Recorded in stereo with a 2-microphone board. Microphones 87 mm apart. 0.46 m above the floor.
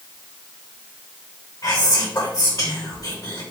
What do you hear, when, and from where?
1.6 s whispering: 50° left (ahead or behind), 1.8 m